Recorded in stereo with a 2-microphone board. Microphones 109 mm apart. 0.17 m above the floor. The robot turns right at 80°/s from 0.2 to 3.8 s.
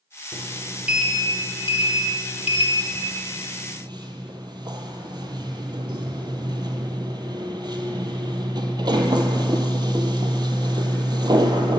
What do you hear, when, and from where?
0.3 s a sliding door: 55° right, 0.7 m; by 11.8 s 140° right, 0.7 m